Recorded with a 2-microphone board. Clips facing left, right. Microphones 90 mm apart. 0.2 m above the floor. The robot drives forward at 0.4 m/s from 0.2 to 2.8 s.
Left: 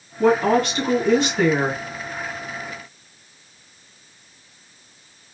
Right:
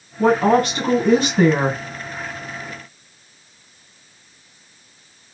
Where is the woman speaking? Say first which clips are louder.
Right 2 dB; 45° right (ahead or behind), 2.5 m; by 1.8 s 50° right (ahead or behind), 2 m.